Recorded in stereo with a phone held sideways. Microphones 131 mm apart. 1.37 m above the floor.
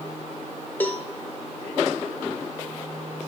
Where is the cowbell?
15° left (ahead or behind), 0.7 m.